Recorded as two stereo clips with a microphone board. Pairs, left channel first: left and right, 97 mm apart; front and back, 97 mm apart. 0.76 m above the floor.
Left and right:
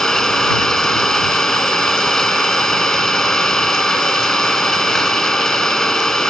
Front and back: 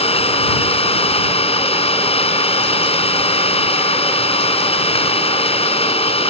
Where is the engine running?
5° left.